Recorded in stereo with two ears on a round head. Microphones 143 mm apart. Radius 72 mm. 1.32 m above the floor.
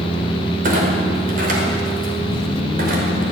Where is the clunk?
55° right (ahead or behind), 5 m.